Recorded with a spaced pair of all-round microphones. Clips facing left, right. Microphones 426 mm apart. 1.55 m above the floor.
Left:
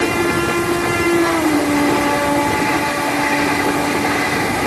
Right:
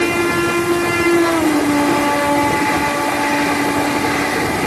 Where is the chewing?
I don't hear chewing.